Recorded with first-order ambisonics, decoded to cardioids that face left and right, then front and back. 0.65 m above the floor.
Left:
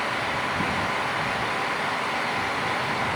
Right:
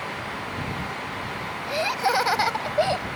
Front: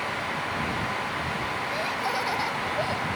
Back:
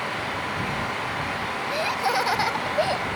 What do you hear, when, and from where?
1.7 s laughter: 110° right; by 3.1 s 115° right